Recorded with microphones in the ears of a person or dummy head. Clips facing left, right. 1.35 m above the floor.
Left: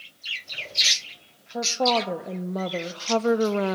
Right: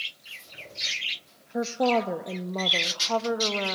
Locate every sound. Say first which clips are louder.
1.5 s a woman speaking: even; 5° right (ahead or behind), 1.4 m; by 3.8 s 55° left (ahead or behind), 1.1 m